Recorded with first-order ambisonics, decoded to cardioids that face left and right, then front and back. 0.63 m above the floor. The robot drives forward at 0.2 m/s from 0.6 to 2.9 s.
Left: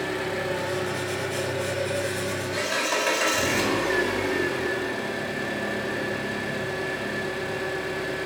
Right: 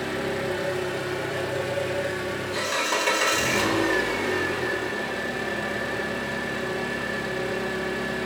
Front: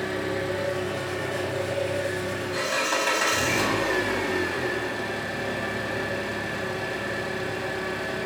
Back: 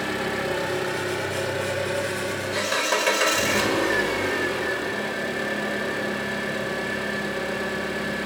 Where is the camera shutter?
I don't hear a camera shutter.